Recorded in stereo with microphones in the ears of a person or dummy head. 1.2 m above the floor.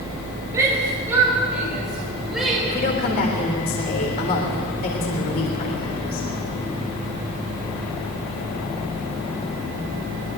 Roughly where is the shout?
Centre.